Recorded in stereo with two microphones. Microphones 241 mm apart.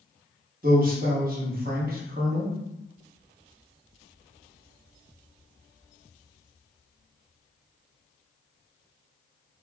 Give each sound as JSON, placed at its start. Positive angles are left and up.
{"t": 0.6, "sound": "a man speaking", "side_deg": -35, "distance_m": 1.3}